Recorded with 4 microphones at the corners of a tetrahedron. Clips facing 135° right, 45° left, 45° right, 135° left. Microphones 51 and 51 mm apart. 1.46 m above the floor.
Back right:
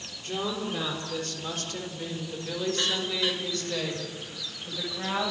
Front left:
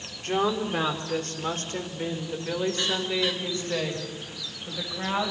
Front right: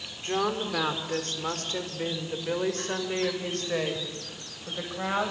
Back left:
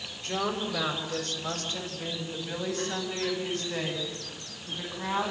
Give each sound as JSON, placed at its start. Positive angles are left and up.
{"t": 0.2, "sound": "a woman speaking", "azimuth_deg": 10, "distance_m": 4.0}